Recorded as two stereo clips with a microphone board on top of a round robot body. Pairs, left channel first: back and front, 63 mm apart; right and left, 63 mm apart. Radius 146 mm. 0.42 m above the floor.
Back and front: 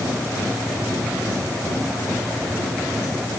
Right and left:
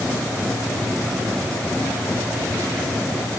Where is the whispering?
I don't hear whispering.